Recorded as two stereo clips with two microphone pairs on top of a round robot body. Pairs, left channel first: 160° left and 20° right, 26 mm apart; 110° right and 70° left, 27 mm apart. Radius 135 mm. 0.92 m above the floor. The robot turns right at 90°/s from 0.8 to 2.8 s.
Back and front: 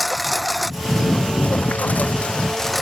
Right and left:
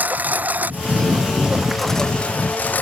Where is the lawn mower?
75° left; by 2.8 s 105° right.